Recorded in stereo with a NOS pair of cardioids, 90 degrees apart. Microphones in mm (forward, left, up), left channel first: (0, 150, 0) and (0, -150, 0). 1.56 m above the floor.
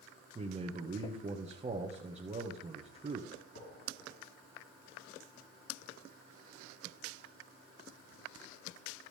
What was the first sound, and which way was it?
A man speaking, 25° right.